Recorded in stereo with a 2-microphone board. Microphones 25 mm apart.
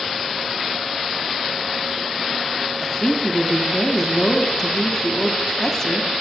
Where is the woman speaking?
20° left (ahead or behind), 1.1 m.